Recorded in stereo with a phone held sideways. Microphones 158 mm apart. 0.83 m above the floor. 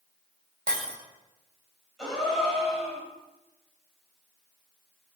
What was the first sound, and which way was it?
Breaking glass, 70° right (ahead or behind).